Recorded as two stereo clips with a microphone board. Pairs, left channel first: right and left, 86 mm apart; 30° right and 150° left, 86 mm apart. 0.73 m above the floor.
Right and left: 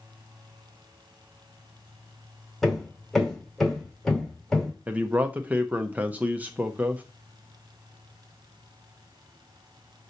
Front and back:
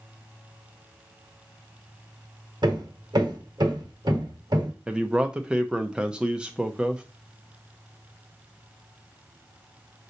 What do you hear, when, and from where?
2.6 s hammering: 175° right, 1.7 m
4.9 s a man speaking: 95° left, 0.6 m